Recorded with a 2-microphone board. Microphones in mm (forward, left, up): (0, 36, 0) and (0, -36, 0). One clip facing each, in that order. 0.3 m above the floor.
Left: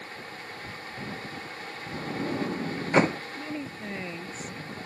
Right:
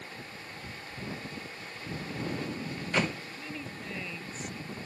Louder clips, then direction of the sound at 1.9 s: Left 6 dB; 30° left (ahead or behind).